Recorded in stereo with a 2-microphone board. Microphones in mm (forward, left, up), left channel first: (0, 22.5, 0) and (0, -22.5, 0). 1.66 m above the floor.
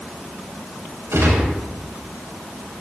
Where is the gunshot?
85° right, 5.5 m.